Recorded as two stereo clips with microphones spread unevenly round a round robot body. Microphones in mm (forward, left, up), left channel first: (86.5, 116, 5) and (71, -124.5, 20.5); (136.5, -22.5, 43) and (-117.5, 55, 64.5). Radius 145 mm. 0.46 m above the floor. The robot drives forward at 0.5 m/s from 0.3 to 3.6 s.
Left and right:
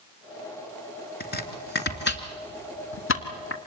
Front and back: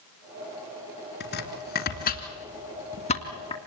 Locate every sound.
1.2 s chopping: 35° left, 3 m; by 3.6 s 55° left, 2 m